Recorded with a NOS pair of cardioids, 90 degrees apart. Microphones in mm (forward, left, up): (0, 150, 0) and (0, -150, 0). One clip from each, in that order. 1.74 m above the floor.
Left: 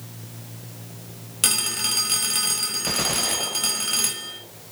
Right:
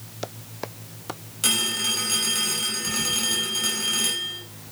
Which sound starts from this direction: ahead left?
A phone ringing, at 1.4 s.